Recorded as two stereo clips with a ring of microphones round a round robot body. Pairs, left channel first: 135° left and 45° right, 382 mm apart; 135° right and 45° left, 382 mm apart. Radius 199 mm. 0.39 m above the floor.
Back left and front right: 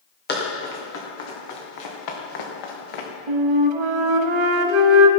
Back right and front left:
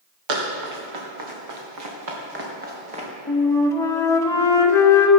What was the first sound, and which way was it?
Running footsteps, 70° left.